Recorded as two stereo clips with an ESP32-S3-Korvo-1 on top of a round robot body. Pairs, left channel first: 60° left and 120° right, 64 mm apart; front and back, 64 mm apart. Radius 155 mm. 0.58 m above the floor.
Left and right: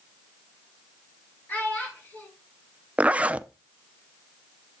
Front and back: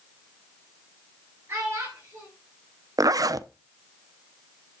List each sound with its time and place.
1.5 s a child speaking: 125° left, 7.5 m
3.0 s a zipper: 170° left, 0.6 m